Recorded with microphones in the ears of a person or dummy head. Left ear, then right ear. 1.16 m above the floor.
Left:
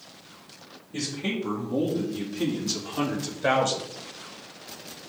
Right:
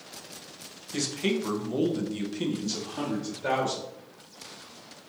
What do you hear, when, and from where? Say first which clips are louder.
0.9 s a man speaking: right 2 dB; 55° right (ahead or behind), 1.1 m; by 3.9 s 45° left (ahead or behind), 0.9 m